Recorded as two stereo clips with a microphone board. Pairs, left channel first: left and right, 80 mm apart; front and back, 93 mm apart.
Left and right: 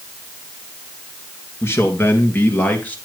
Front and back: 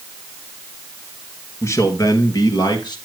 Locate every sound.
1.6 s a man speaking: 45° left, 1.6 m; by 3.0 s 25° left, 2.0 m